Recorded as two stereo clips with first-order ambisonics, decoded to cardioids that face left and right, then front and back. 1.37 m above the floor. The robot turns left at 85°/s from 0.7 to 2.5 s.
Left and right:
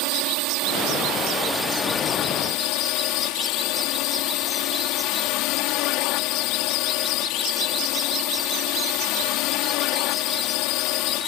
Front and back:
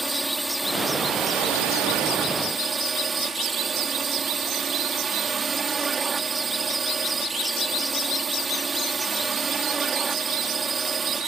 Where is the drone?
95° right; by 11.3 s 110° left.